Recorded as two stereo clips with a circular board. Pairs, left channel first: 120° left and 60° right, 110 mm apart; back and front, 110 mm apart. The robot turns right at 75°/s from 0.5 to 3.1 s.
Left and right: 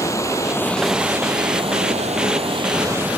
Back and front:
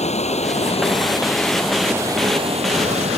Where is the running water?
Straight behind; by 3.2 s 15° left.